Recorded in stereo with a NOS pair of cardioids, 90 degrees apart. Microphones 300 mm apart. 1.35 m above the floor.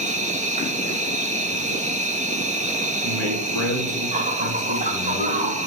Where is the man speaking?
65° right, 3 m.